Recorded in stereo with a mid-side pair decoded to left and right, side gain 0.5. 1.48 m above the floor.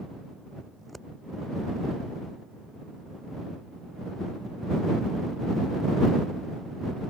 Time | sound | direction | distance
0.8 | scissors | 10° right | ?